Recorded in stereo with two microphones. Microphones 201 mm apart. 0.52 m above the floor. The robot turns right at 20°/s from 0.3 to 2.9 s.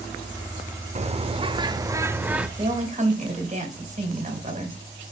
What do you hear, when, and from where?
0.9 s a bird: 35° right, 0.5 m; by 2.5 s 5° right, 0.5 m
2.6 s a woman speaking: 30° right (ahead or behind), 2.5 m; by 4.8 s 35° right (ahead or behind), 2.5 m